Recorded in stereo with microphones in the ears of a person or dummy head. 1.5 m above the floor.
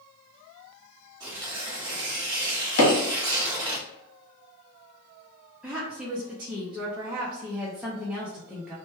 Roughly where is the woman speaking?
Centre.